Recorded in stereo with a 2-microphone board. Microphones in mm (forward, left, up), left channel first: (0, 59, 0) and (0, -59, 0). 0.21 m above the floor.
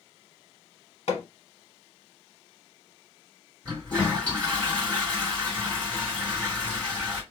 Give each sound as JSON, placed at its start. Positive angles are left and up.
{"t": 1.1, "sound": "hammering", "side_deg": 60, "distance_m": 1.1}
{"t": 3.6, "sound": "a toilet flushing", "side_deg": 10, "distance_m": 2.0}